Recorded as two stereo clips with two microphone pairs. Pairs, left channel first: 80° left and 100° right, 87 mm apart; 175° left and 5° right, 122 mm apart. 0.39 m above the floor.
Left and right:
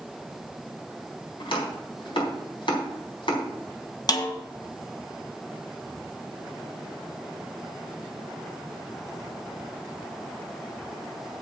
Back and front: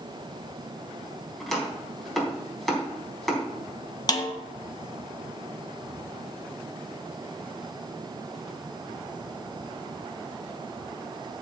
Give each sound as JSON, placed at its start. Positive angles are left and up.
{"t": 1.4, "sound": "chopping", "azimuth_deg": 85, "distance_m": 4.0}
{"t": 4.1, "sound": "a snare drum", "azimuth_deg": 120, "distance_m": 1.7}